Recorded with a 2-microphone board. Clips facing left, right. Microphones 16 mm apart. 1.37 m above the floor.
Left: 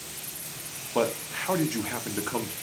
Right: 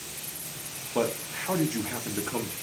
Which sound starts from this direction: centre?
A man speaking, at 0.9 s.